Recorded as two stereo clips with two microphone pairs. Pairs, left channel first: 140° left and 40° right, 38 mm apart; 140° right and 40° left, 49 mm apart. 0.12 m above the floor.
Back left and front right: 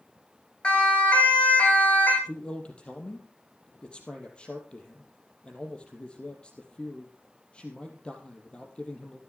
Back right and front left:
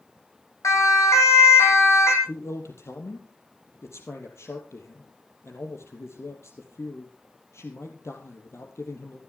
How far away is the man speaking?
About 3.5 m.